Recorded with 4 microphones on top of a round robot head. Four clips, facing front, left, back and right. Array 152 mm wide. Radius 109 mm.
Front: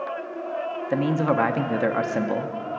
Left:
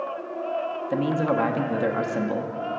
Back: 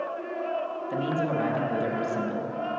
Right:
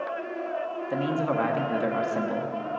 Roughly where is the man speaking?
Ahead.